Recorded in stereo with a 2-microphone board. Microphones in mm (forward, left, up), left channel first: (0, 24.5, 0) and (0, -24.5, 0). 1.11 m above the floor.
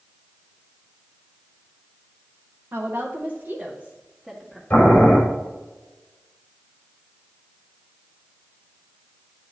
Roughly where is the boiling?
Left.